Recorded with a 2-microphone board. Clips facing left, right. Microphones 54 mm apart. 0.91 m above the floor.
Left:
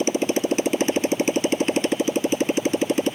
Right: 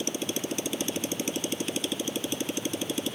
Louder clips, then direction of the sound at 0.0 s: Left 10 dB; 50° left (ahead or behind).